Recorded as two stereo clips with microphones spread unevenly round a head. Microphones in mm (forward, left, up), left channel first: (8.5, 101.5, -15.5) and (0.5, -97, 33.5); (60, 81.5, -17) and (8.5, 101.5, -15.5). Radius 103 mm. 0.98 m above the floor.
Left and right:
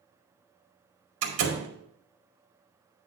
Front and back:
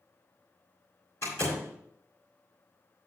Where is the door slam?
100° right, 2 m.